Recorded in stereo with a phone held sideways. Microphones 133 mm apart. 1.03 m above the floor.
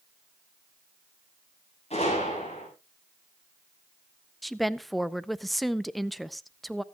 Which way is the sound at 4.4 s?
Centre (ahead or behind).